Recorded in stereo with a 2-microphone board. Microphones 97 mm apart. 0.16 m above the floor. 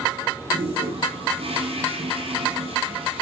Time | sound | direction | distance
0.5 | a toilet flushing | 75° right (ahead or behind) | 7 m